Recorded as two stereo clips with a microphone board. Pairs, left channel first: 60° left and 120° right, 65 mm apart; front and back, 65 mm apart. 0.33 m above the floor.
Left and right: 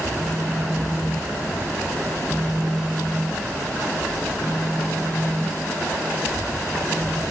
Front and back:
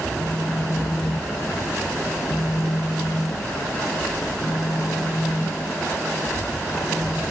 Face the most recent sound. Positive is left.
turn(degrees=-25)